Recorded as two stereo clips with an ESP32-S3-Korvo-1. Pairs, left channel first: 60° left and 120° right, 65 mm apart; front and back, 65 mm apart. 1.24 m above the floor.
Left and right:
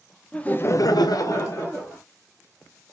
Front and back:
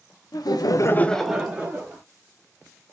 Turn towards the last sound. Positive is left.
turn(degrees=115)